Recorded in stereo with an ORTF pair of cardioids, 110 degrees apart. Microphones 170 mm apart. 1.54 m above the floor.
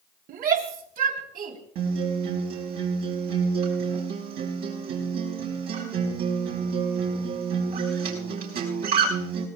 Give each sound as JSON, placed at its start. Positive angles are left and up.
{"t": 0.3, "sound": "a shout", "azimuth_deg": -60, "distance_m": 3.0}
{"t": 1.8, "sound": "a guitar", "azimuth_deg": -65, "distance_m": 5.5}